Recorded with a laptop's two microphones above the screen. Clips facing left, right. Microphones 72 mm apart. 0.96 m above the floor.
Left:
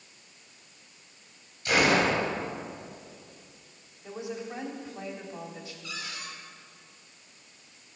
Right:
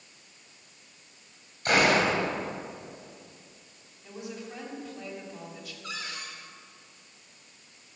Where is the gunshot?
50° right (ahead or behind), 3 m.